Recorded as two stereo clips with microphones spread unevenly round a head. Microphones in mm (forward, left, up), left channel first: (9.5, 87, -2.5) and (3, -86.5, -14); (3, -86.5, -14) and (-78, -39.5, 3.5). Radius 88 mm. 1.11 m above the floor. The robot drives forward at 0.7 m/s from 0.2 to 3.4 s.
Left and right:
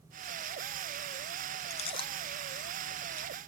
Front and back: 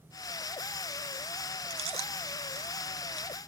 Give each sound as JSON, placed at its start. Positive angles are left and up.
{"t": 1.7, "sound": "chewing", "azimuth_deg": 140}